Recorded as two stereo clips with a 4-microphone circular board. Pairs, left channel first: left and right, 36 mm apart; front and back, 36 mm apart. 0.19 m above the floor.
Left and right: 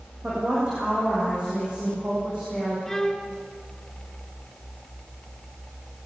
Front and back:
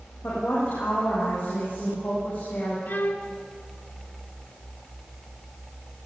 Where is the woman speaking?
25° right, 10 m.